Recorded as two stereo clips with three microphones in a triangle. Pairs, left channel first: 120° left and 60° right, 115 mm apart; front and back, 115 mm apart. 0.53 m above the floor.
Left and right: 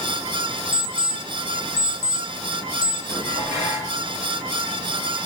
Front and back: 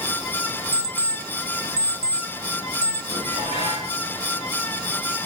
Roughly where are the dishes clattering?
Behind.